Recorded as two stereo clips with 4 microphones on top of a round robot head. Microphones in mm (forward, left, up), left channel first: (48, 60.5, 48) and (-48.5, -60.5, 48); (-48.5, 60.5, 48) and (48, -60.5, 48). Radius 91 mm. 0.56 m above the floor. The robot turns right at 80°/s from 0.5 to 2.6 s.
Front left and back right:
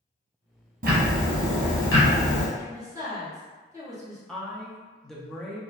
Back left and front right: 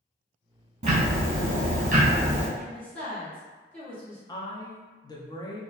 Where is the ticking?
95° right, 0.8 m; by 2.5 s 35° left, 0.8 m.